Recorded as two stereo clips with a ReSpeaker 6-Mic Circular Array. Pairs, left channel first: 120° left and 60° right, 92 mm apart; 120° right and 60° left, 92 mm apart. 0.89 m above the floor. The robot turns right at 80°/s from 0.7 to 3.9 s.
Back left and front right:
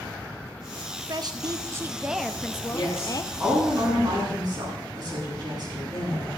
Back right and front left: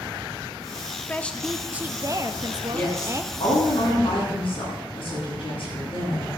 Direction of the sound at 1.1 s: 60° right.